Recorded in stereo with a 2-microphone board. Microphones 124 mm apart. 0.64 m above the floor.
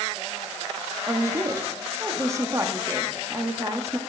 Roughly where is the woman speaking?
Right.